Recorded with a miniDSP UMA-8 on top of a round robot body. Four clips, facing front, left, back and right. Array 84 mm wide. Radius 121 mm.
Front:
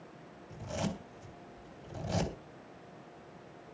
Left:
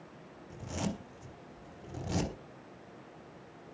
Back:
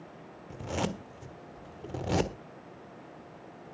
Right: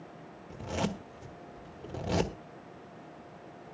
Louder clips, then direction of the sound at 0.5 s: Right 4 dB, back 4 dB; 155° right.